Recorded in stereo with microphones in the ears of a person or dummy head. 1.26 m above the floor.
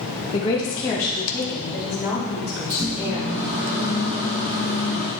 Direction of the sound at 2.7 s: 80° right.